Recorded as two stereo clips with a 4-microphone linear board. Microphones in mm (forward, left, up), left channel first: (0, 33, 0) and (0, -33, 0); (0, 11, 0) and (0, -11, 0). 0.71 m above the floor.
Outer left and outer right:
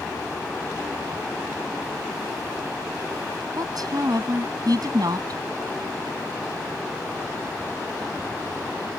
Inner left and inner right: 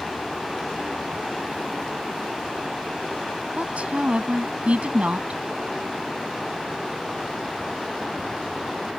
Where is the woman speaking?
60° right (ahead or behind).